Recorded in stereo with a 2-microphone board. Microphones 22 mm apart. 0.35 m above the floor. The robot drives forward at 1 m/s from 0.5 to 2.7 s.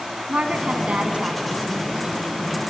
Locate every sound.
0.3 s a woman speaking: 70° right (ahead or behind), 3 m; by 2.6 s 50° right (ahead or behind), 3.5 m